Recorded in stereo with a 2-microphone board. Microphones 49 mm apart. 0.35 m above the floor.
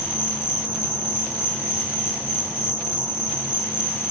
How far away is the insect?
About 3.5 m.